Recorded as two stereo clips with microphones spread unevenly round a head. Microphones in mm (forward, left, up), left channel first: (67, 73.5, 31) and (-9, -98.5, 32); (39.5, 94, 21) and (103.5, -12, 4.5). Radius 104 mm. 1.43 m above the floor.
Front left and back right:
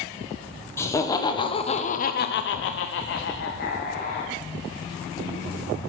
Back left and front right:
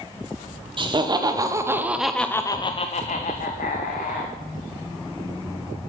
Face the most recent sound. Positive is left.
turn(degrees=120)